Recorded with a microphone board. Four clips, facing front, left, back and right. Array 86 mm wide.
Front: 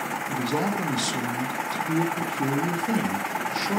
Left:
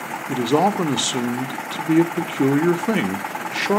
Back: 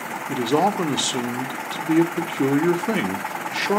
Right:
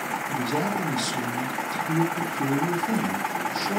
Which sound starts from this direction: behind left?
A man speaking, at 0.3 s.